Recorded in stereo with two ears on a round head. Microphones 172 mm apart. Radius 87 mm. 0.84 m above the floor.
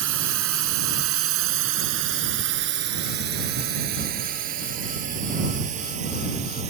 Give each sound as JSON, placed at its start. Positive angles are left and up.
{"t": 0.0, "sound": "a drone", "side_deg": -80}